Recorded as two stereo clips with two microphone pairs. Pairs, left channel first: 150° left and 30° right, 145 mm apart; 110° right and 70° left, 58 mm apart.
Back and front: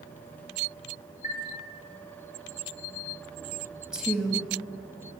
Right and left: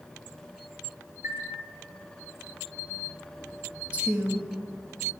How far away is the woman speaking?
About 1.0 m.